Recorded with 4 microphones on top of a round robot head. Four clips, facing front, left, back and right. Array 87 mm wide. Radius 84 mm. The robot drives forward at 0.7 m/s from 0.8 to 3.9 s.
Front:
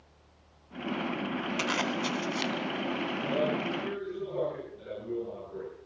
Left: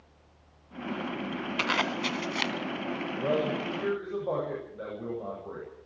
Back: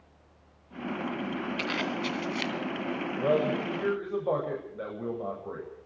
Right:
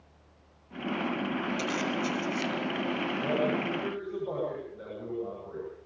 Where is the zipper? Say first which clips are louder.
Left 1 dB, front 2 dB; 65° left, 2.5 m; by 2.5 s 85° left, 2.5 m.